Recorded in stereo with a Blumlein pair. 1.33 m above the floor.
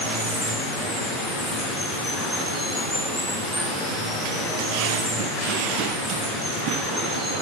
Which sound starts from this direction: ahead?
Running water, at 0.0 s.